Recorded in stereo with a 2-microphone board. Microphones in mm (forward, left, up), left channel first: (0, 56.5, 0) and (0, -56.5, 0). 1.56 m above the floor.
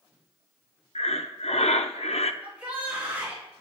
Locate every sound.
0.9 s breathing: 75° left (ahead or behind), 0.6 m
2.4 s a shout: 15° right (ahead or behind), 4.5 m